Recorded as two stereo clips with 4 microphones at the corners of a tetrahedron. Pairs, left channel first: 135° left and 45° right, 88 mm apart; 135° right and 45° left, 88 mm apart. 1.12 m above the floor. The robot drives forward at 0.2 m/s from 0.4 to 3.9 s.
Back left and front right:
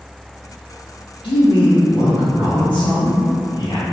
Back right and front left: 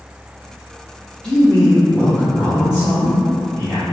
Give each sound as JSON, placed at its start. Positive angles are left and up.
{"t": 1.2, "sound": "a man speaking", "azimuth_deg": 145, "distance_m": 0.6}